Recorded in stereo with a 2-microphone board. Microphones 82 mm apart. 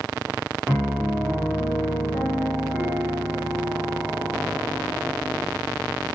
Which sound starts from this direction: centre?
A piano, at 0.7 s.